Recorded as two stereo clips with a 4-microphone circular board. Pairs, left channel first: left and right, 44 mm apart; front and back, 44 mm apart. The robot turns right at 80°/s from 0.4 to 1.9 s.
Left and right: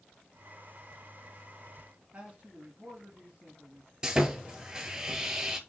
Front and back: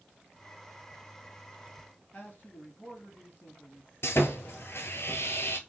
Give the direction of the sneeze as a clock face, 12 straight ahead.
No sneeze in this recording.